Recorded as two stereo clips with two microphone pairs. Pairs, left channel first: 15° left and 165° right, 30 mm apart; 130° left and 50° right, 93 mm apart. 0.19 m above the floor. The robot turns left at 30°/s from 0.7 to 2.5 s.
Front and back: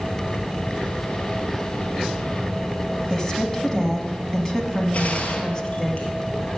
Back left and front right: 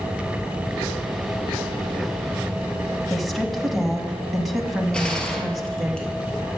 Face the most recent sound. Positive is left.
turn(degrees=50)